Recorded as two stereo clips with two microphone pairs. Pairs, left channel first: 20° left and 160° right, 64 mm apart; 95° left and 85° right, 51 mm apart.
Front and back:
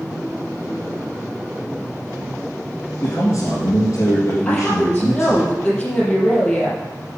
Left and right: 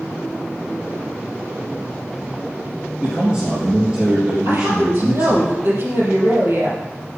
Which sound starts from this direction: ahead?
A man speaking, at 3.0 s.